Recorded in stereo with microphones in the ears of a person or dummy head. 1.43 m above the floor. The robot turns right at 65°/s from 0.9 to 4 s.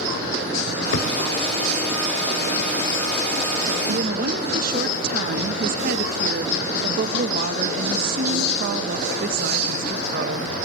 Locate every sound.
0.9 s a thud: 60° left (ahead or behind), 3 m; by 1.1 s 65° left (ahead or behind), 3 m
3.9 s a woman speaking: 65° right (ahead or behind), 1.0 m; by 10.5 s 55° right (ahead or behind), 1.0 m